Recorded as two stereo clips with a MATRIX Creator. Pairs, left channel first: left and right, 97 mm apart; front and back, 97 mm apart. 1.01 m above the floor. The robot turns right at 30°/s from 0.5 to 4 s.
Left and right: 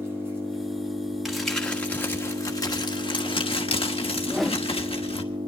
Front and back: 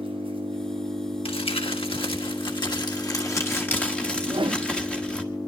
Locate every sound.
0.0 s an engine running: 155° right, 6 m; by 5.5 s 50° right, 6 m
1.2 s crumpling: 5° right, 1.3 m; by 5.2 s 80° left, 1.3 m
4.2 s a whoosh: 175° left, 0.8 m